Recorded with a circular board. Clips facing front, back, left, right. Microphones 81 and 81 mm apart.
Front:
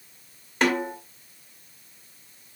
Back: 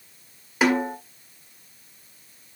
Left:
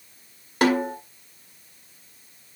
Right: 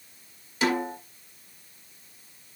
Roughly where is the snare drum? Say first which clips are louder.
Back 3 dB, left 5 dB; left.